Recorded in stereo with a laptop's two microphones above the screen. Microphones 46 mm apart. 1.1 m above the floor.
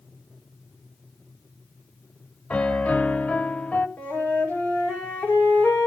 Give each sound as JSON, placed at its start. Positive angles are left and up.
{"t": 2.5, "sound": "a piano", "side_deg": 30, "distance_m": 0.9}
{"t": 4.0, "sound": "a flute", "side_deg": 30, "distance_m": 4.5}